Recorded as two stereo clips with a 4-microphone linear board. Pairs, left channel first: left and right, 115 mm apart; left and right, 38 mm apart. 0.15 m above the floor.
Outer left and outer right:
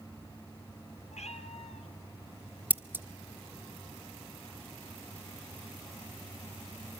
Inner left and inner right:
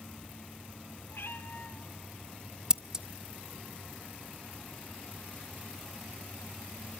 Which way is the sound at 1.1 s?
70° left (ahead or behind).